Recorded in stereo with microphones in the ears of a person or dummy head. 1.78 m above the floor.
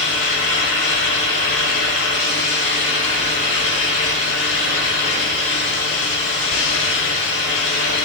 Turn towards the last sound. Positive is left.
turn(degrees=65)  # may be behind; listen again after turning